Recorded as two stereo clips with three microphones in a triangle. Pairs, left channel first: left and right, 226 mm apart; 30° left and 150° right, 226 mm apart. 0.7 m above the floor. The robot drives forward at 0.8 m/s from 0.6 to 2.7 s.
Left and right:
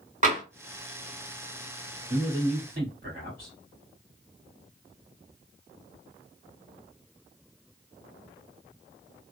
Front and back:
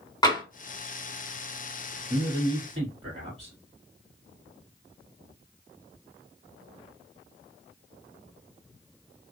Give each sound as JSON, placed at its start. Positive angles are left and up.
{"t": 0.2, "sound": "tapping", "azimuth_deg": -40, "distance_m": 1.7}
{"t": 2.1, "sound": "a man speaking", "azimuth_deg": -110, "distance_m": 1.5}